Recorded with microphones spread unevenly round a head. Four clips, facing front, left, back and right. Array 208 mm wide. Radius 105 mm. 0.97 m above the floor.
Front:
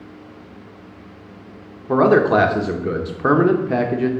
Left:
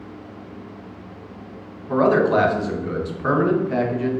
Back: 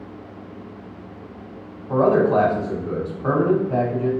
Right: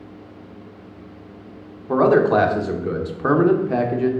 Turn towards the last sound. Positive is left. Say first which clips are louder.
# right 2 dB, front 3 dB
turn(degrees=-10)